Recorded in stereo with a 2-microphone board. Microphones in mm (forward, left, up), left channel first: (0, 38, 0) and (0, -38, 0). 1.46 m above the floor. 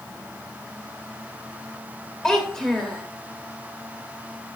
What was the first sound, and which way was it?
A child speaking, 5° left (ahead or behind).